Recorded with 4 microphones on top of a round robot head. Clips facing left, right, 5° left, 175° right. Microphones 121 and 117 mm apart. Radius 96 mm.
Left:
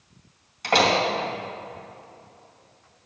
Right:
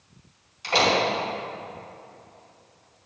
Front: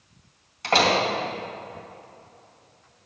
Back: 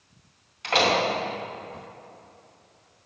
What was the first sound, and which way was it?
A door slam, 60° left.